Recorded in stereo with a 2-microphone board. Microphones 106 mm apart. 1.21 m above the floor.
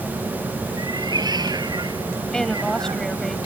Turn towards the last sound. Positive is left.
turn(degrees=5)  # may be behind; listen again after turning